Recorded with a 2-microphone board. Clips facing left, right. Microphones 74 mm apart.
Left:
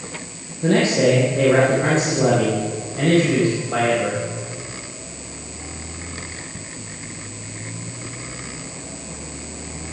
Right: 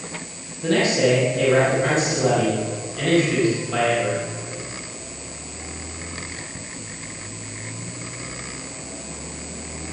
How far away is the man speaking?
About 5 m.